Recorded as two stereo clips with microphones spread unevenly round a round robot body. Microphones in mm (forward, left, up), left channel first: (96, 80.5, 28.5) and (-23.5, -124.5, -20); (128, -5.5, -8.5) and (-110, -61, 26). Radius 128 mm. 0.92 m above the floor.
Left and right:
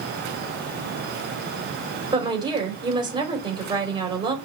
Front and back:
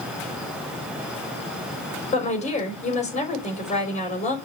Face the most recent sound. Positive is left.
turn(degrees=-50)